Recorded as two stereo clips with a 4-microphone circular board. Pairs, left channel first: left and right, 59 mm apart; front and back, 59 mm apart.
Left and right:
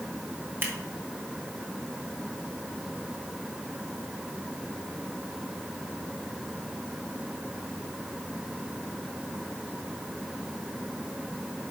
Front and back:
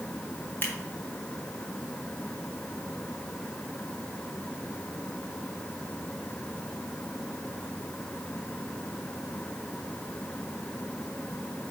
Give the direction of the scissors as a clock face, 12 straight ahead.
2 o'clock.